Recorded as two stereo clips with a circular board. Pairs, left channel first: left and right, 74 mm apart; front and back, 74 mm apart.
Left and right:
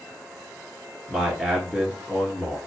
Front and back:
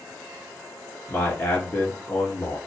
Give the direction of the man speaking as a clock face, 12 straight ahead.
12 o'clock.